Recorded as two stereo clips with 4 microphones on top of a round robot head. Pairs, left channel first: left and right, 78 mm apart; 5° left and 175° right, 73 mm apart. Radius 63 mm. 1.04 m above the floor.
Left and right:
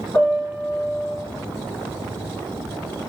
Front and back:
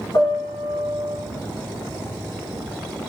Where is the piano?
20° left, 1.3 m.